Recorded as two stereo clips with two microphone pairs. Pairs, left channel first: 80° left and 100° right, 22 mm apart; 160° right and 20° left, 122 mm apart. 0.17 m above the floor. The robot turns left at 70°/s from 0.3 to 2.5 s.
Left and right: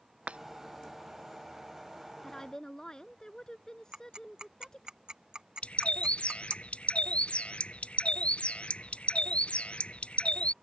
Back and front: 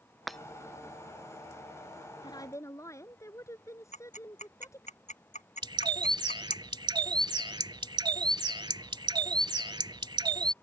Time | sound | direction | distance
0.3 | breaking glass | 70° right | ?
2.2 | a woman speaking | 160° left | ?
3.9 | ticking | 145° right | ?
5.6 | a bird | 70° left | ?